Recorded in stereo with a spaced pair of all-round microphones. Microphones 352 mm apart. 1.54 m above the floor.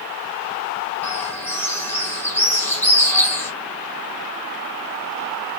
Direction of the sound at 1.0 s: 5° left (ahead or behind).